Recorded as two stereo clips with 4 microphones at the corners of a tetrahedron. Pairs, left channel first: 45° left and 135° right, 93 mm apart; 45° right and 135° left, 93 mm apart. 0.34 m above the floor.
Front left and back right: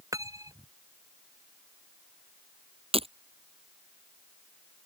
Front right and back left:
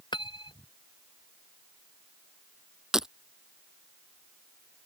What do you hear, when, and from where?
0.1 s cutlery clinking: 80° right
2.9 s breaking glass: 140° right